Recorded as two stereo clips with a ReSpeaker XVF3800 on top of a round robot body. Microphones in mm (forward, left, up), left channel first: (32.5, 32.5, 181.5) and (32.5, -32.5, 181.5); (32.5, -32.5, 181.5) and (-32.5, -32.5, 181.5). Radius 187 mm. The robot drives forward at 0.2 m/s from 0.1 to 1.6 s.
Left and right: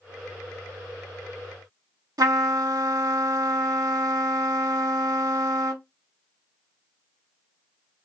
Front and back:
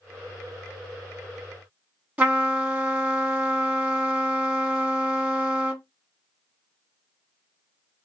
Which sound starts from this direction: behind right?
A trumpet, at 2.2 s.